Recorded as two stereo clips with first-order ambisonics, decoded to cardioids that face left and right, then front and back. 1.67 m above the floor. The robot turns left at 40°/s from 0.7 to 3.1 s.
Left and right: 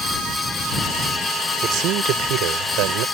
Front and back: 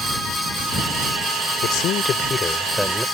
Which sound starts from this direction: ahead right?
A man speaking, at 1.6 s.